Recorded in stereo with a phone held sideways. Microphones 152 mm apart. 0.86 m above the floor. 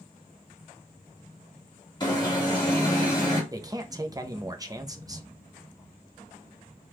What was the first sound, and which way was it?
An alarm, 30° left (ahead or behind).